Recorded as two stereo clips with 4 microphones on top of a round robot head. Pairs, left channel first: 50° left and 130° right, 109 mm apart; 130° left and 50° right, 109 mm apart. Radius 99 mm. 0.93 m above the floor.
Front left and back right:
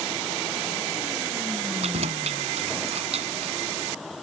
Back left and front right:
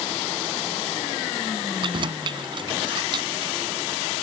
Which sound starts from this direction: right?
Keys jangling, at 1.8 s.